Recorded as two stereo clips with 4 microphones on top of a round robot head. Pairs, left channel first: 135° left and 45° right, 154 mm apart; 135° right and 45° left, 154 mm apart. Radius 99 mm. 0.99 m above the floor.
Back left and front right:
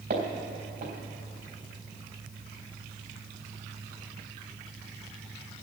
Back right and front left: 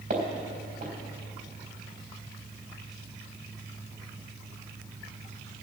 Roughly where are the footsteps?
Ahead.